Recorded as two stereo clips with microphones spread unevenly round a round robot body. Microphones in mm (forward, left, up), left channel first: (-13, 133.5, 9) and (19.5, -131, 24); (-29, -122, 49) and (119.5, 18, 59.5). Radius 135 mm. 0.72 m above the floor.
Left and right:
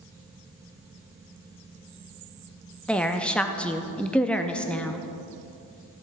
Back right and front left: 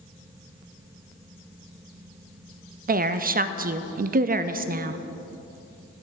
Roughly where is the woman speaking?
Ahead.